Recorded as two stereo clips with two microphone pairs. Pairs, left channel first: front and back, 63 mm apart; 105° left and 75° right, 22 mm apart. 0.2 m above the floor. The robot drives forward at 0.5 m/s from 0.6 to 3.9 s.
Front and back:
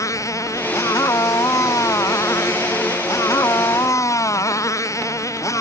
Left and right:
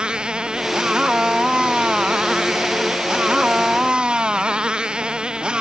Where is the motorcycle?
30° right; by 5.6 s 35° right.